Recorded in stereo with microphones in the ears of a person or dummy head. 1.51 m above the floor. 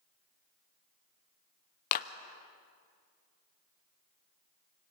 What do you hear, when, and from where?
1.9 s a clap: 50° left (ahead or behind), 0.7 m